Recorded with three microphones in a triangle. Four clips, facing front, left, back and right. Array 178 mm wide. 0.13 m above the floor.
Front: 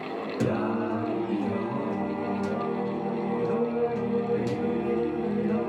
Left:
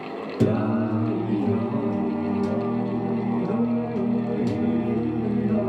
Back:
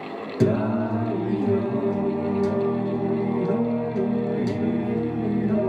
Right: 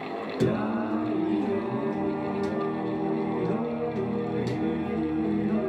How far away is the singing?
About 0.9 m.